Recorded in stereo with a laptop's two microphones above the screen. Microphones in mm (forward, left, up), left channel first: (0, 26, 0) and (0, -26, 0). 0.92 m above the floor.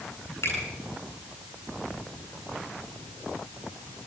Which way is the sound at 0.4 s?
70° left (ahead or behind).